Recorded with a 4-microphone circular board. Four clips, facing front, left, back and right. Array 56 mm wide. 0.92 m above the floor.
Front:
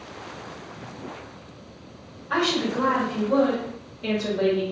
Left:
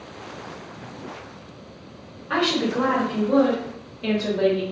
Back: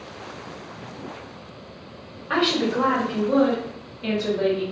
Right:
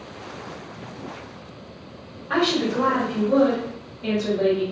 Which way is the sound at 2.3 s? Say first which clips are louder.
Right 1 dB, back 2 dB; 175° left.